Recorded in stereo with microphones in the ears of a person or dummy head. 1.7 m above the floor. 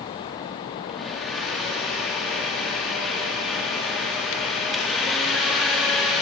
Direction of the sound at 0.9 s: Centre (ahead or behind).